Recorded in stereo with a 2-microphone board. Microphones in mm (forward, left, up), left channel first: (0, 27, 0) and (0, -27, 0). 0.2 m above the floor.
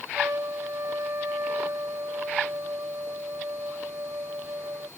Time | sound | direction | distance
0.1 | a trumpet | 70° right (ahead or behind) | ?